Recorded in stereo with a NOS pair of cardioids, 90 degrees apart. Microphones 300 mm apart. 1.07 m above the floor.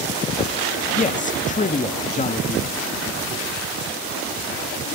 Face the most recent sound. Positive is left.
turn(degrees=25)